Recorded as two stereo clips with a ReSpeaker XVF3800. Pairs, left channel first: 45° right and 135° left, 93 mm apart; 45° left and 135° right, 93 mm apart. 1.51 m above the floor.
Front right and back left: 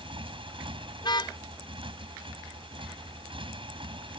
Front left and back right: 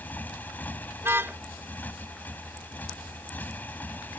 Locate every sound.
0.0 s a motorcycle: 115° left
1.0 s a car horn: 75° right